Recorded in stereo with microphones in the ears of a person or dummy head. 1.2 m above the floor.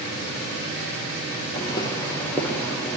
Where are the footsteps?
20° left (ahead or behind), 7.5 m; by 3.0 s 5° left (ahead or behind), 8 m.